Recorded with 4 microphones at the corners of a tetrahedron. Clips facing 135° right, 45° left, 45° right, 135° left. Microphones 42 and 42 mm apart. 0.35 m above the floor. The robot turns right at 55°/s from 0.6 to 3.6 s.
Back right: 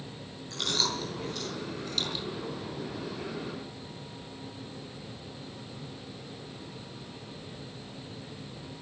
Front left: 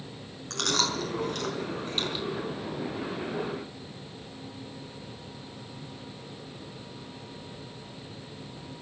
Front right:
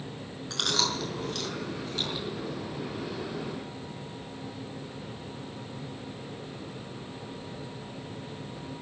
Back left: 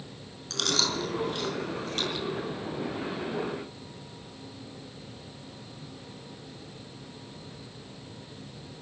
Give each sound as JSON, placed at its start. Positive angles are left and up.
{"t": 0.5, "sound": "chewing", "azimuth_deg": 30, "distance_m": 5.0}